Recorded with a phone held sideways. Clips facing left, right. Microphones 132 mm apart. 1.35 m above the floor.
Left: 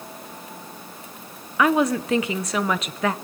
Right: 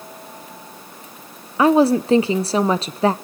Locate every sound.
1.6 s a woman speaking: 30° right (ahead or behind), 0.6 m